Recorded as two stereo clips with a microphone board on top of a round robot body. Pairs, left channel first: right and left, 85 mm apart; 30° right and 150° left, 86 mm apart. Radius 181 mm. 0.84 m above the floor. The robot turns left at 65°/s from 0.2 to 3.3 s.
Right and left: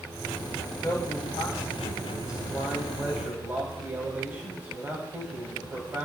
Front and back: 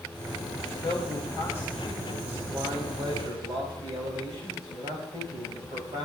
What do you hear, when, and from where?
0.7 s a man speaking: 35° right, 4.5 m; by 6.1 s 155° left, 4.5 m